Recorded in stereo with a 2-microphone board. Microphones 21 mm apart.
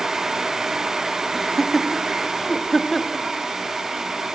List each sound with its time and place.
1.3 s laughter: 5° left (ahead or behind), 0.6 m